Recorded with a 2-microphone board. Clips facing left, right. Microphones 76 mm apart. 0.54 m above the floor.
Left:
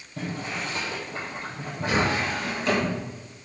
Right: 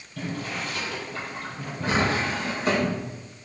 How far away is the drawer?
About 2.5 m.